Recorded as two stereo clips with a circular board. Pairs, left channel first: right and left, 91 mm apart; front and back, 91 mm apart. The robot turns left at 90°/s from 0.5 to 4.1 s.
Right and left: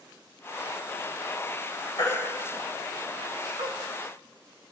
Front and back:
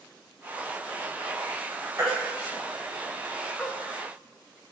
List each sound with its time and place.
2.0 s a baby crying: 125° right, 2 m; by 3.7 s 75° left, 2 m